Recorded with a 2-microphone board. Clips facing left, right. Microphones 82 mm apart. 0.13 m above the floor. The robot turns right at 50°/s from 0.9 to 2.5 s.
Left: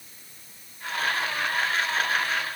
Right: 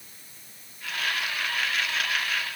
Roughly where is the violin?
No violin in this recording.